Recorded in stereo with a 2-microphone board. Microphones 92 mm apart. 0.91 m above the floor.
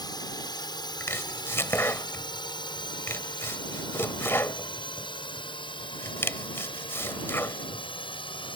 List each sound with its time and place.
0.0 s a drone: 50° left (ahead or behind); by 8.6 s 65° left (ahead or behind)
1.0 s chopping: 25° left (ahead or behind)